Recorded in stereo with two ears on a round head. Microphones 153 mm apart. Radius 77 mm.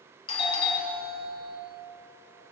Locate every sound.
0.3 s a doorbell: 30° left (ahead or behind), 2 m